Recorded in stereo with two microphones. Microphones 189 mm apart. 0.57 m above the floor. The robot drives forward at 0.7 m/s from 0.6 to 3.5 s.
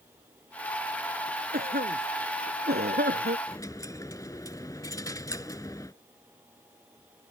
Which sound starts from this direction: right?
A cough, at 1.5 s.